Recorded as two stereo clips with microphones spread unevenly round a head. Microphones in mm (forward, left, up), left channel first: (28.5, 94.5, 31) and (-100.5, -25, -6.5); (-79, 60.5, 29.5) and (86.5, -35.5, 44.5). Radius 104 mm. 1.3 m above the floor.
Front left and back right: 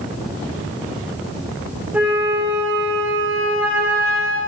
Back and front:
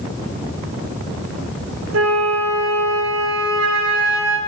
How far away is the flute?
About 4.5 m.